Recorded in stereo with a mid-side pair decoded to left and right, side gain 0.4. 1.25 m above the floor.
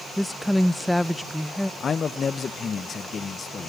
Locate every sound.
0.2 s a woman speaking: 10° left, 0.7 m
1.8 s a man speaking: 50° left, 0.9 m